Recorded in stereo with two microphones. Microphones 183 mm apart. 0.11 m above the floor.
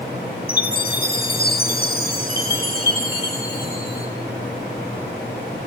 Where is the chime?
55° left (ahead or behind), 8 m.